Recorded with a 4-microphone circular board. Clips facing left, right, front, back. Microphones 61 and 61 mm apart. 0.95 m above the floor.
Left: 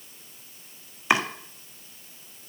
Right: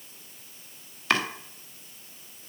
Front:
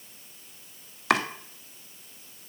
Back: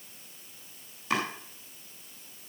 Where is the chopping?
15° left, 1.5 m.